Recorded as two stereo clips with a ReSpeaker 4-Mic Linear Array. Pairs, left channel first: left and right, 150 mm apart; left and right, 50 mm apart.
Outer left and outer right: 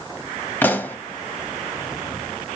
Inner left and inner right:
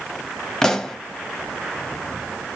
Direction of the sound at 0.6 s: 15° left (ahead or behind).